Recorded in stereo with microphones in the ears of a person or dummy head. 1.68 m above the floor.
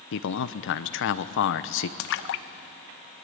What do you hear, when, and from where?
0.1 s a man speaking: 65° left (ahead or behind), 0.9 m
2.0 s a splash: 60° left (ahead or behind), 0.7 m